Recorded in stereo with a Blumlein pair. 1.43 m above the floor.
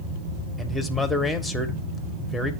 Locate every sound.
0.6 s a man speaking: 5° left, 1.1 m